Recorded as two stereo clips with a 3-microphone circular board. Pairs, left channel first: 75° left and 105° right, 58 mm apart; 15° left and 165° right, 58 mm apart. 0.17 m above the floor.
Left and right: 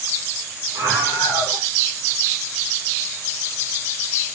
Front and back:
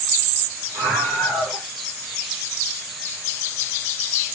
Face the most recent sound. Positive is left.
turn(degrees=-110)